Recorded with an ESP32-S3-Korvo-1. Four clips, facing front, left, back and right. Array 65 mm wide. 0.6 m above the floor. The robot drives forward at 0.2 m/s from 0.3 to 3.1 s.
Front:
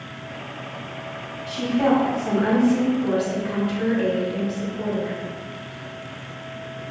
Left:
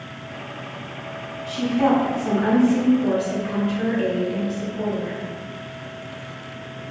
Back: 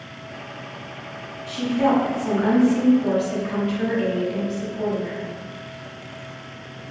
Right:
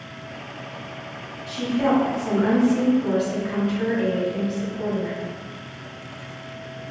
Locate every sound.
1.5 s a woman speaking: 100° left, 0.9 m; by 5.2 s 140° left, 1.0 m